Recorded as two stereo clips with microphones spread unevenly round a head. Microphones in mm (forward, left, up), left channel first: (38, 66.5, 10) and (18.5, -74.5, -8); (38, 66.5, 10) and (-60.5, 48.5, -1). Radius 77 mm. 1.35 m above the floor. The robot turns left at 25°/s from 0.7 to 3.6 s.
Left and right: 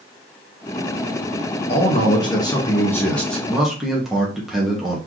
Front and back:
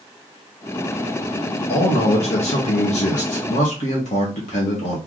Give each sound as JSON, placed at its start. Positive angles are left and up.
{"t": 1.7, "sound": "a man speaking", "azimuth_deg": 35, "distance_m": 1.4}